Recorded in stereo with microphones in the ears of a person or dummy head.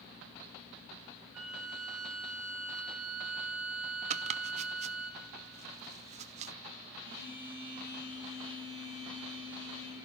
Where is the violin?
15° right (ahead or behind), 3.5 m.